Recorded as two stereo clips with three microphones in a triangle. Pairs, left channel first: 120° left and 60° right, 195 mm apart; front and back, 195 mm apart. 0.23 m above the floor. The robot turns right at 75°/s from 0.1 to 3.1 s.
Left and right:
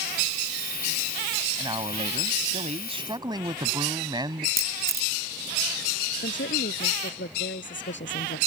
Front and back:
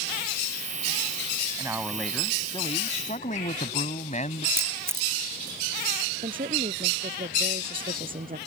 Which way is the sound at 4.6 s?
105° right.